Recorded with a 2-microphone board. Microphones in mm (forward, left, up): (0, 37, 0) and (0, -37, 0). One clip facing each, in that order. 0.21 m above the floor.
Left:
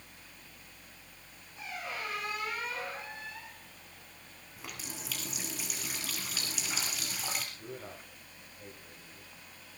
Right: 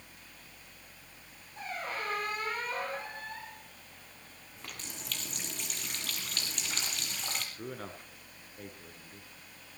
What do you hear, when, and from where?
1.6 s a squeak: 45° right (ahead or behind), 5 m
4.6 s a running tap: 5° left (ahead or behind), 4.5 m
7.5 s a man speaking: 55° right (ahead or behind), 3 m